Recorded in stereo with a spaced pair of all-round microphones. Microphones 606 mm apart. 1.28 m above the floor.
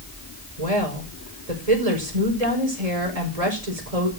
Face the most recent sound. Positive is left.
turn(degrees=-85)